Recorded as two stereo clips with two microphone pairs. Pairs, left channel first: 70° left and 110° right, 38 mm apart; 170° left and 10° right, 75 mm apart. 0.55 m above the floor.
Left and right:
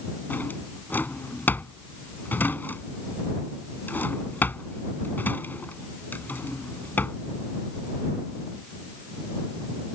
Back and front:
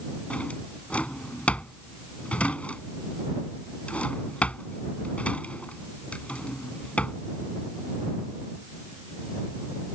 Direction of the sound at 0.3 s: 100° left.